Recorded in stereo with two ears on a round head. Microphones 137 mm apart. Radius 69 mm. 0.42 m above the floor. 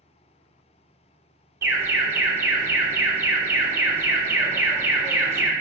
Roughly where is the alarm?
Centre.